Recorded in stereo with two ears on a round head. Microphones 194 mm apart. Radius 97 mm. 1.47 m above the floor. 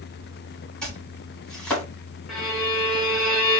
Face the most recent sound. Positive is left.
turn(degrees=0)  # may be behind; listen again after turning